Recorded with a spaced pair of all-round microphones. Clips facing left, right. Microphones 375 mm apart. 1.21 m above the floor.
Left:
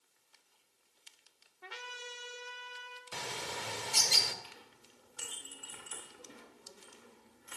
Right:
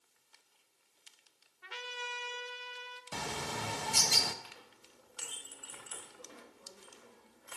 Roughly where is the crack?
I don't hear a crack.